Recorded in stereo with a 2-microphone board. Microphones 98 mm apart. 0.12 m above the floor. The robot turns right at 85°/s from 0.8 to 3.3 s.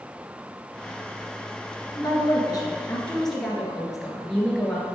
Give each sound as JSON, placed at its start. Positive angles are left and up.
{"t": 1.9, "sound": "a woman speaking", "azimuth_deg": 65, "distance_m": 1.6}